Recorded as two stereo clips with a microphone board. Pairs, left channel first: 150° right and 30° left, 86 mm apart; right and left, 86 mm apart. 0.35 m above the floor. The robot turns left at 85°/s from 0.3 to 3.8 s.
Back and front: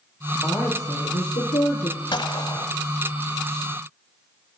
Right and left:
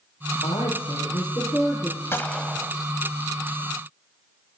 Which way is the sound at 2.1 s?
150° right.